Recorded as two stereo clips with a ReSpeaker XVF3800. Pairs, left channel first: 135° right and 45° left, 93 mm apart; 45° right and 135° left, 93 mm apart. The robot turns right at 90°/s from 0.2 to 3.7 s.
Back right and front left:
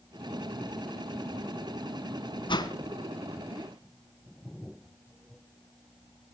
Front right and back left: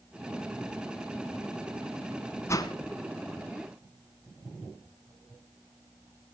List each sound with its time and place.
2.5 s a whoosh: 105° right, 2.0 m; by 2.8 s 85° right, 2.0 m